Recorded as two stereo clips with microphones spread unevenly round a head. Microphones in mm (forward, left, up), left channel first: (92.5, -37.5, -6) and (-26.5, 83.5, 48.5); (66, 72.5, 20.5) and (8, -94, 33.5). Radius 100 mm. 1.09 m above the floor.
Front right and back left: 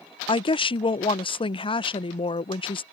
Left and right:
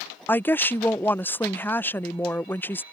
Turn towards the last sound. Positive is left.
turn(degrees=-5)